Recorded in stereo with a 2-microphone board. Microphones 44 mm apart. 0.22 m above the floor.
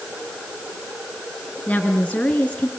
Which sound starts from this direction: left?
A woman speaking, at 1.7 s.